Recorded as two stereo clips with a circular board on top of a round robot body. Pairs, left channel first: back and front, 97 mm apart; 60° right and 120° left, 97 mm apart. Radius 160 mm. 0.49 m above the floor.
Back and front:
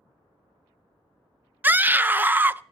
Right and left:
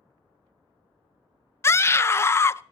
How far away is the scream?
About 0.7 m.